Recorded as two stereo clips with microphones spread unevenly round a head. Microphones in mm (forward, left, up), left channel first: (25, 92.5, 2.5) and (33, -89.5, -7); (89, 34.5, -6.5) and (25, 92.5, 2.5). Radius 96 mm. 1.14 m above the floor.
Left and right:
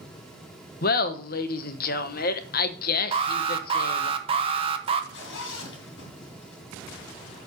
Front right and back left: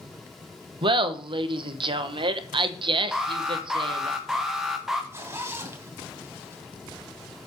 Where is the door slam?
No door slam in this recording.